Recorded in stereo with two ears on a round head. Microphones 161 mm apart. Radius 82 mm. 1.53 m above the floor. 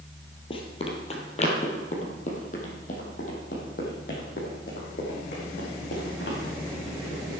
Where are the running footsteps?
30° left (ahead or behind), 2 m; by 6.4 s 55° left (ahead or behind), 5 m.